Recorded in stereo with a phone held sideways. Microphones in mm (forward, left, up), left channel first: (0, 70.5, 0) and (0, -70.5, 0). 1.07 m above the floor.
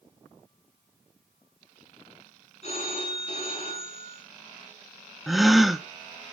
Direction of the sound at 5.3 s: Centre (ahead or behind).